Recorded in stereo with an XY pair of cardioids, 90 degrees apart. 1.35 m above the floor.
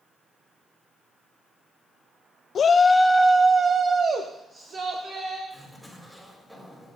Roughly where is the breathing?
I don't hear breathing.